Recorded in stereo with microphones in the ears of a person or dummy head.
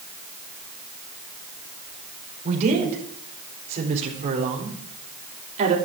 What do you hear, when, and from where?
2.5 s a woman speaking: 40° right (ahead or behind), 4.5 m; by 5.8 s 35° right (ahead or behind), 3 m